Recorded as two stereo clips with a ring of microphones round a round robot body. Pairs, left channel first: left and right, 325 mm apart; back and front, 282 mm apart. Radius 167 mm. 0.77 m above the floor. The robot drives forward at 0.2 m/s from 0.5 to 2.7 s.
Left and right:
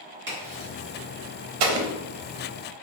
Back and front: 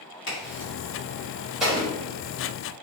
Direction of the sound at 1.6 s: 90° right.